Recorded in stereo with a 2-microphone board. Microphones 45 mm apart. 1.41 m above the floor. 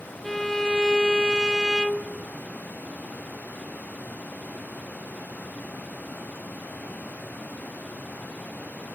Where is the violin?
10° left (ahead or behind), 0.7 m.